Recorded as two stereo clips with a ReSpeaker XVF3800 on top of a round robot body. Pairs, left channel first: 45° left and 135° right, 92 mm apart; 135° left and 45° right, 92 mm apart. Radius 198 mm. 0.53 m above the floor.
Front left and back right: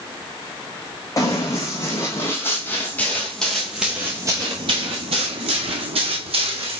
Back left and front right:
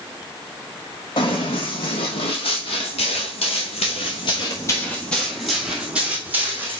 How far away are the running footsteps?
About 2.0 m.